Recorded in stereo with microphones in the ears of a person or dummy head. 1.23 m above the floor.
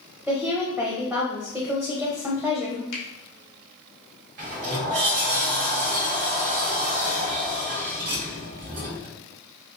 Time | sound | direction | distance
0.3 | a woman speaking | 5° right (ahead or behind) | 0.8 m
2.9 | a finger snap | 80° left | 1.6 m
4.4 | a sliding door | 45° right (ahead or behind) | 1.2 m